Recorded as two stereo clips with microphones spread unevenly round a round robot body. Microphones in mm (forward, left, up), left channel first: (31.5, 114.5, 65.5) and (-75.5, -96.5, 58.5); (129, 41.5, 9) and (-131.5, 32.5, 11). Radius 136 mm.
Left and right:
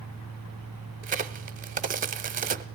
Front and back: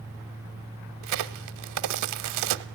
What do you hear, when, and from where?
1.0 s a crack: 170° right, 0.7 m